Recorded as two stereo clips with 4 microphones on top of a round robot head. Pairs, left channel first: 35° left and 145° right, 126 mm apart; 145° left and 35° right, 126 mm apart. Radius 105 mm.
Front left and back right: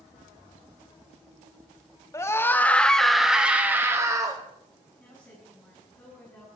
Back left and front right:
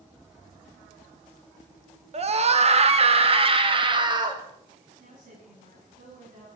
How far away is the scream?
About 1.8 m.